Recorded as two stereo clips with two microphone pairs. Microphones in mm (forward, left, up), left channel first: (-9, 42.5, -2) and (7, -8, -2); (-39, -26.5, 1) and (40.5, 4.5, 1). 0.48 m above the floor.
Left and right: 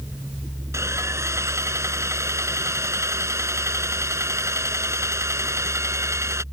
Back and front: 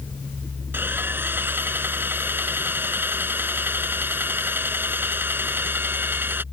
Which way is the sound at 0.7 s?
45° right.